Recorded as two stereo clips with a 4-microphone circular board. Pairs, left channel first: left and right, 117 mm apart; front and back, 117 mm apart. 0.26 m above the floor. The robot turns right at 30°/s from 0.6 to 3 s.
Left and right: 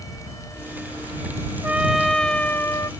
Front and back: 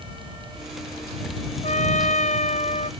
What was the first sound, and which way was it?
A trumpet, 10° right.